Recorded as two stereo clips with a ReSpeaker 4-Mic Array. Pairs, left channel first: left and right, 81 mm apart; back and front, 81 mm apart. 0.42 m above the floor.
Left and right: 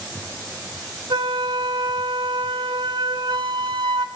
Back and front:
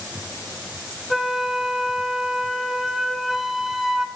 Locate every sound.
1.1 s a flute: 85° right, 0.7 m